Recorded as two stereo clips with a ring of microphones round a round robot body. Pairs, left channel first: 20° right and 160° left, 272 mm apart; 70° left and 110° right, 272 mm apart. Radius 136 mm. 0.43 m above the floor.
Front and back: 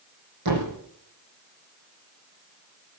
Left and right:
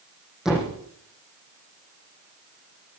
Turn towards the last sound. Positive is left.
turn(degrees=160)